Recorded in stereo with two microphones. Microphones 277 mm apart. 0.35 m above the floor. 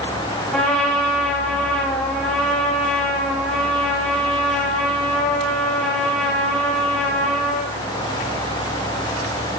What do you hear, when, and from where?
0.5 s a trumpet: centre (ahead or behind), 2.5 m